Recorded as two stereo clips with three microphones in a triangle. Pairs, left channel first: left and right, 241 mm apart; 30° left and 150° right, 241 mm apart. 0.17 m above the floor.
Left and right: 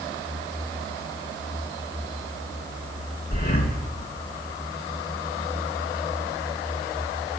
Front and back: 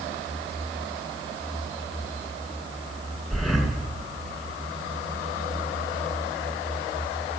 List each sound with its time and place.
3.3 s breathing: 120° left, 1.8 m